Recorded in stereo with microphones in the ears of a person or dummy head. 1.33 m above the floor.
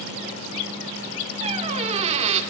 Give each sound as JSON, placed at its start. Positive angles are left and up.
{"t": 1.4, "sound": "a squeak", "side_deg": -30, "distance_m": 1.7}